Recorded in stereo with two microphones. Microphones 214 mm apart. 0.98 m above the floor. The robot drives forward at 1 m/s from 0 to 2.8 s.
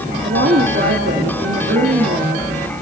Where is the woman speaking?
60° right (ahead or behind), 2 m; by 2.5 s 50° right (ahead or behind), 2 m.